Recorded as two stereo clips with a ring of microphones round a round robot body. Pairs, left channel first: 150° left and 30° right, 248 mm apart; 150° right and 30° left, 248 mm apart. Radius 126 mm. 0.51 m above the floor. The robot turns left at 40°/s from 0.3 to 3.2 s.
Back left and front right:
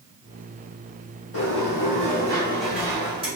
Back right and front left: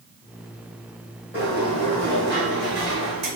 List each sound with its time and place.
1.3 s a sliding door: 110° left, 2.5 m; by 3.3 s 40° left, 2.5 m